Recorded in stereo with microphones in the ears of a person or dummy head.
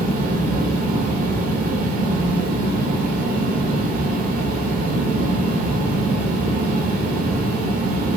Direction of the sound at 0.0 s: 50° right (ahead or behind).